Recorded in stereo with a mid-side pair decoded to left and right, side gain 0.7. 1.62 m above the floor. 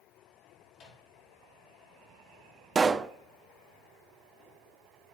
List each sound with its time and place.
0.7 s a microwave: 40° left, 4.5 m
2.8 s a pop: 25° right, 0.6 m